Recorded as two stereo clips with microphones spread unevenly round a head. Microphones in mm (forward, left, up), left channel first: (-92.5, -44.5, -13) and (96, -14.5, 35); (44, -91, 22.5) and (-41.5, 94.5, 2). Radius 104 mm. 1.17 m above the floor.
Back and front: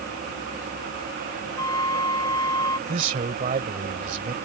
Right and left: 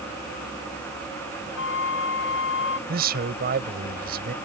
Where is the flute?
100° right.